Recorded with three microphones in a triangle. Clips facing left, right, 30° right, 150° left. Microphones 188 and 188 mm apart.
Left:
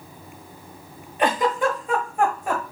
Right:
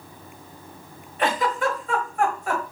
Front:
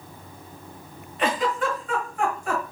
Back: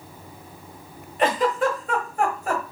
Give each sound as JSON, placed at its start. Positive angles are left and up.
{"t": 1.2, "sound": "a giggle", "azimuth_deg": 150, "distance_m": 1.2}